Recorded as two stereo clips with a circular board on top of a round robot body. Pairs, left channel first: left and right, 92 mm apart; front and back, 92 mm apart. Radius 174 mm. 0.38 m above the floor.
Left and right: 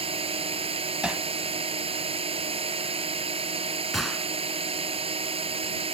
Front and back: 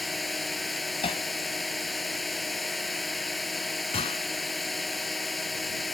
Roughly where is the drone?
Right.